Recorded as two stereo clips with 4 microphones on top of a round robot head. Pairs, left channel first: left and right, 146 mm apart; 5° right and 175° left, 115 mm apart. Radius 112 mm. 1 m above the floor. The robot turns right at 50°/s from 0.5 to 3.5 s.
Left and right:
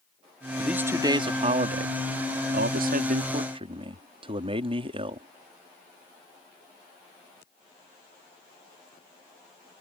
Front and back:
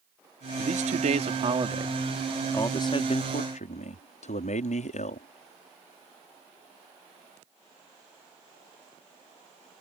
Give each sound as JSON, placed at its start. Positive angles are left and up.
{"t": 0.6, "sound": "a man speaking", "azimuth_deg": -175}